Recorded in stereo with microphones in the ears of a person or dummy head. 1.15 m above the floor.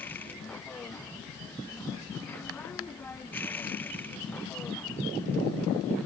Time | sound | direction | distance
0.0 | a machine running | 10° left (ahead or behind) | ?